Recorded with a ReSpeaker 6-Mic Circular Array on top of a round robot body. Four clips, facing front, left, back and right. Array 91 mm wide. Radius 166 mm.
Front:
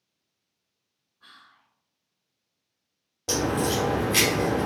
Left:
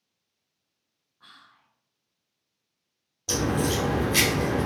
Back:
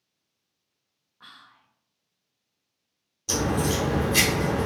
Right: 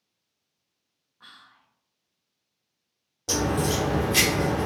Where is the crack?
25° right, 1.2 m.